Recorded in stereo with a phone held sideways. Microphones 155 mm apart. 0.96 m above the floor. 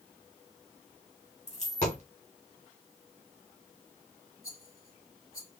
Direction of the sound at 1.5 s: 50° left (ahead or behind).